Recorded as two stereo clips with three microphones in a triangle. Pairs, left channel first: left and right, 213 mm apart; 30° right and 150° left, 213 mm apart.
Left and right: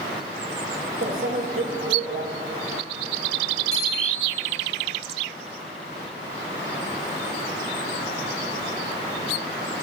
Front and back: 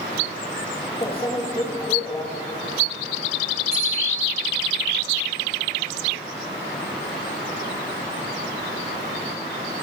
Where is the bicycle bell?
90° right, 6.5 m.